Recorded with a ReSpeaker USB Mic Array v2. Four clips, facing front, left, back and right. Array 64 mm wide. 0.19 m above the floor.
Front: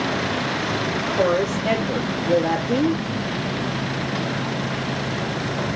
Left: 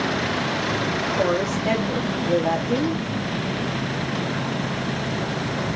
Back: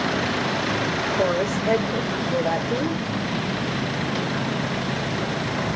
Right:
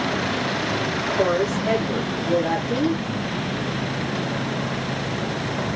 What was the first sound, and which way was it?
A woman speaking, 20° left.